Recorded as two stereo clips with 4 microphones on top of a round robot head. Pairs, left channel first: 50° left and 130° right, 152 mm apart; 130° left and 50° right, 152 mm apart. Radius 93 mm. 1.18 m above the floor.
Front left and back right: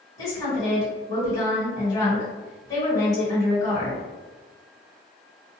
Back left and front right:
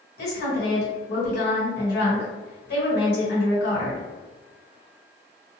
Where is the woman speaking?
115° left, 1.4 m.